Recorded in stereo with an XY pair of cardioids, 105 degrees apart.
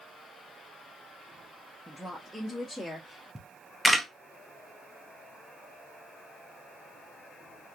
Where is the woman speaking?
5° left, 0.8 m; by 3.2 s 5° right, 1.8 m.